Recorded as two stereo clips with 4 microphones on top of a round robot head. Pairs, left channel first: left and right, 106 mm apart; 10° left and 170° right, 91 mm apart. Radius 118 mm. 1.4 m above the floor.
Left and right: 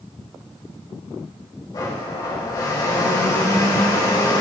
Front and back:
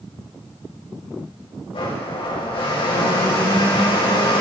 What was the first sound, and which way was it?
A blender, 35° left.